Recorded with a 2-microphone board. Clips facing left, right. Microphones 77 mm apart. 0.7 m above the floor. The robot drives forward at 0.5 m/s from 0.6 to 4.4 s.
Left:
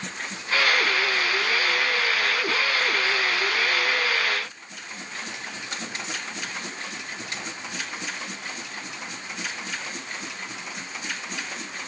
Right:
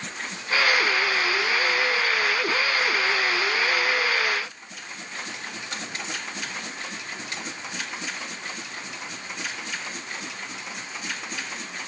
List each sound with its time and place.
Only background noise.